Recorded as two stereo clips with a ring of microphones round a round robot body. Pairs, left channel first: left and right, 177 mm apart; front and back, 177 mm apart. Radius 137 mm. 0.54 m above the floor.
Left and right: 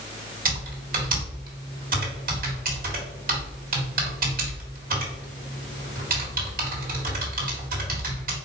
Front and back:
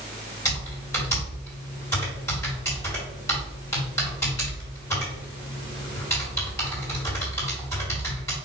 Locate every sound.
0.5 s typing on a keyboard: 70° right, 1.7 m